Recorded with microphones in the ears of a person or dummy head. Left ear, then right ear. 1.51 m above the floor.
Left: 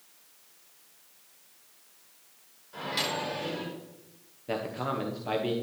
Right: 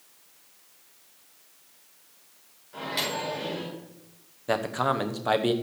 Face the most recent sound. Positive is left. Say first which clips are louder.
# right 6 dB
turn(degrees=-45)  # may be behind; listen again after turning